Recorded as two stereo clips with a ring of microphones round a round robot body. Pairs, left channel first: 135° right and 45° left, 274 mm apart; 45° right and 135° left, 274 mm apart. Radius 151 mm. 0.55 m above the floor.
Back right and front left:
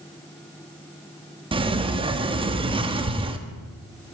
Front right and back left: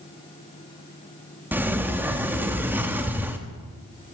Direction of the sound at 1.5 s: 65° left.